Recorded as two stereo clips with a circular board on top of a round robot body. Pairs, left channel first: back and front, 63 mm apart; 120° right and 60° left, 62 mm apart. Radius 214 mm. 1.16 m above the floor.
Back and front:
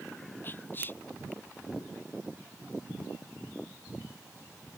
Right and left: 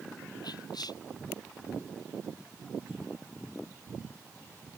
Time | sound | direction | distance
0.4 | whispering | 120° right | ?